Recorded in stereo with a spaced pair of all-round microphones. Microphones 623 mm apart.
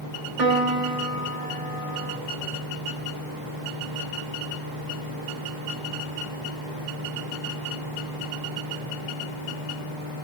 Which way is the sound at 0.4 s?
55° right (ahead or behind).